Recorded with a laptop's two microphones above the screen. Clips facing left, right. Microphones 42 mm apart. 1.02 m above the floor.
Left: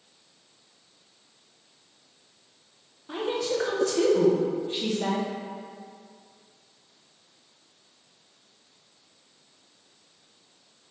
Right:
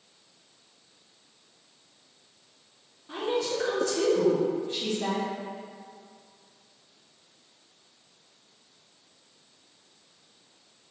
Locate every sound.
3.1 s a woman speaking: 20° left (ahead or behind), 0.8 m